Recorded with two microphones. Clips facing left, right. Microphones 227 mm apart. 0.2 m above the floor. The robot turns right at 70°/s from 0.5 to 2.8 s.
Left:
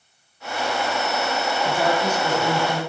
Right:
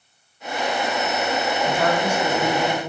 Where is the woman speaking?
160° left, 2 m; by 2.8 s 120° right, 2 m.